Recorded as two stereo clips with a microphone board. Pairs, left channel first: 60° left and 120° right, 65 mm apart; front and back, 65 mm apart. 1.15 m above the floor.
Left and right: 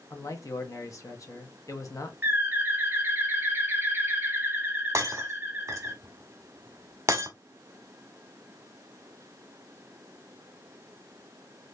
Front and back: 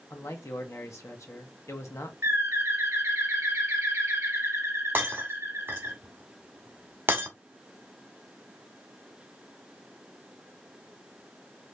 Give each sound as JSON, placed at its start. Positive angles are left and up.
{"t": 0.1, "sound": "a man speaking", "azimuth_deg": 35, "distance_m": 1.0}
{"t": 2.2, "sound": "a bird", "azimuth_deg": -165, "distance_m": 0.9}
{"t": 5.0, "sound": "breaking glass", "azimuth_deg": -135, "distance_m": 1.1}